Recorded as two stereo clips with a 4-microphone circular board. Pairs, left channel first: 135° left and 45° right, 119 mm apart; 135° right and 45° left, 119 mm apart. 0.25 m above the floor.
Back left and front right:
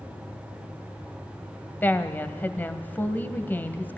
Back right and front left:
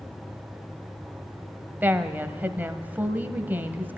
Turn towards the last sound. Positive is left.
turn(degrees=90)